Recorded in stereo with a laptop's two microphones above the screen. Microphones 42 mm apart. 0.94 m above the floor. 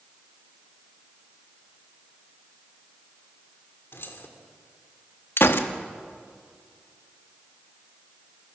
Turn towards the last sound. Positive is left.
turn(degrees=65)  # may be behind; listen again after turning